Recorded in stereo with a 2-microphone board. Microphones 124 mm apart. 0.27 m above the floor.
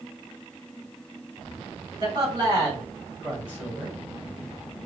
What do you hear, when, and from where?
2.0 s a man speaking: 35° right (ahead or behind), 1.6 m; by 4.0 s 10° right (ahead or behind), 1.6 m